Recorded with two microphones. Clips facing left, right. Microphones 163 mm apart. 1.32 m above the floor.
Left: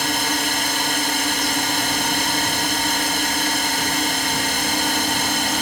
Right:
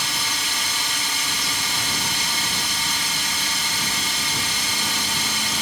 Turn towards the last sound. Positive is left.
turn(degrees=60)  # may be behind; listen again after turning